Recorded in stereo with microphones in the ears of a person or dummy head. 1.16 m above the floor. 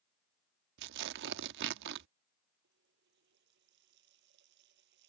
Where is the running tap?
70° right (ahead or behind).